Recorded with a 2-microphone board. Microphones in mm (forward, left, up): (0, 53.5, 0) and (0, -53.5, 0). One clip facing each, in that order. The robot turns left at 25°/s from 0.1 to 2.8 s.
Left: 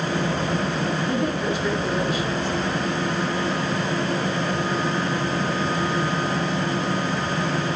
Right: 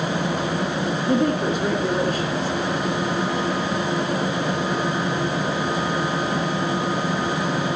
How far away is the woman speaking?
About 2.5 m.